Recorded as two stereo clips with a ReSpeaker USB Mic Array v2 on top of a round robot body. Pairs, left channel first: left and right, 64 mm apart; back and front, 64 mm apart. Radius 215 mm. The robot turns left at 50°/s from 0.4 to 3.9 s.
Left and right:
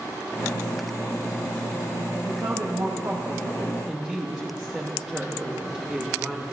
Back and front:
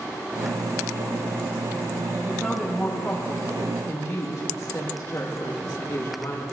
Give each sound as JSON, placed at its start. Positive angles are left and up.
{"t": 2.2, "sound": "a woman speaking", "azimuth_deg": -80, "distance_m": 1.4}